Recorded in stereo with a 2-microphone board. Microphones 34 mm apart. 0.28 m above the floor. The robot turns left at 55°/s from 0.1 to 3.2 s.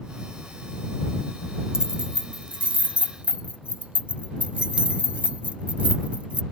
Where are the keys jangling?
25° right (ahead or behind); by 6.4 s 40° right (ahead or behind).